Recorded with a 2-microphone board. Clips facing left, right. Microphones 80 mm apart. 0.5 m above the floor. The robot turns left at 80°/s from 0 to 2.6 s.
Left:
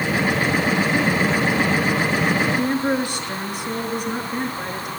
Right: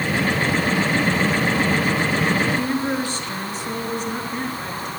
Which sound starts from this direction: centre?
A woman speaking, at 2.5 s.